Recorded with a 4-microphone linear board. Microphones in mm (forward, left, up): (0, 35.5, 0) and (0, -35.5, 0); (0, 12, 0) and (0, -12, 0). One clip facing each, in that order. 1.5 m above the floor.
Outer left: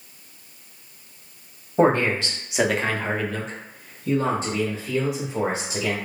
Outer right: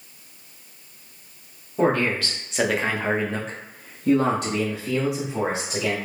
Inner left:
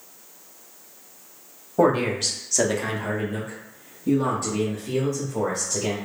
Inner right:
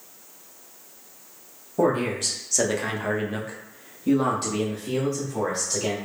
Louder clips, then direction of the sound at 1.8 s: Outer left 2 dB, inner left 3 dB; 35° left (ahead or behind).